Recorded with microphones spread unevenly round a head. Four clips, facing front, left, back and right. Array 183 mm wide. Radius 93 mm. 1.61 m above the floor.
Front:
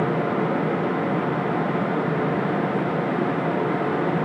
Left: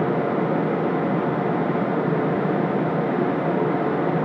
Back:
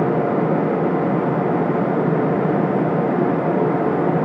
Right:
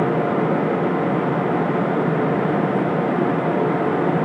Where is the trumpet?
No trumpet in this recording.